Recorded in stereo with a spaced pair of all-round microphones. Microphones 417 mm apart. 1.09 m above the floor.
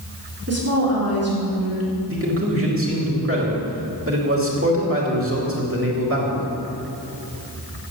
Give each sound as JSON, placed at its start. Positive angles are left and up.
{"t": 0.5, "sound": "a woman speaking", "side_deg": -35, "distance_m": 3.0}
{"t": 2.1, "sound": "a man speaking", "side_deg": -30, "distance_m": 2.5}